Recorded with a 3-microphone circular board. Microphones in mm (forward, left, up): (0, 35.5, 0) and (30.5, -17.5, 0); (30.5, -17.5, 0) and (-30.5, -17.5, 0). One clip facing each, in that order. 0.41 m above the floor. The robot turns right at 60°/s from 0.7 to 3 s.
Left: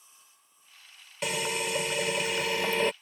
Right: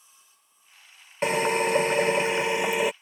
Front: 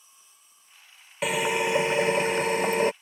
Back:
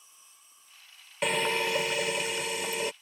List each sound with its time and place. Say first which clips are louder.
1.2 s a drill: right 8 dB, front 3 dB; 85° right; by 2.9 s 15° left